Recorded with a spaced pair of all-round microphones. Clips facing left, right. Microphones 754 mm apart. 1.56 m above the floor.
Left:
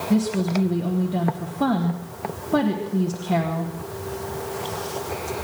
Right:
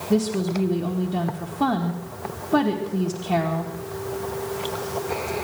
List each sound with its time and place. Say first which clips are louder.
0.1 s a woman speaking: even; centre (ahead or behind), 1.1 m